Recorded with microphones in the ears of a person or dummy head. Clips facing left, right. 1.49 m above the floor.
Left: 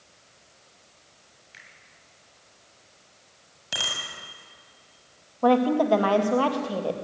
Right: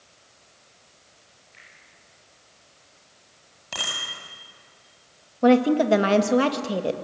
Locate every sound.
1.5 s a finger snap: 85° left, 7.5 m
3.7 s a bicycle bell: 15° left (ahead or behind), 7.5 m
5.4 s a woman speaking: 25° right (ahead or behind), 2.0 m